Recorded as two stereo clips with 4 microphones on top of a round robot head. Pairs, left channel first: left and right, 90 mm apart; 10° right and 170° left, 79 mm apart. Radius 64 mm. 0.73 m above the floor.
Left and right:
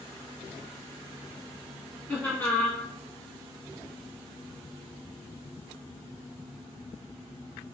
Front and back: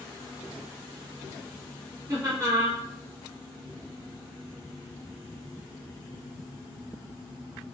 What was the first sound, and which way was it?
Laughter, 150° left.